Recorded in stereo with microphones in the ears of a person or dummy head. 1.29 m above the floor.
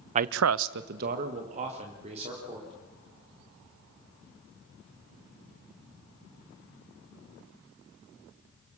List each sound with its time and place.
0.1 s a man speaking: 35° right (ahead or behind), 0.6 m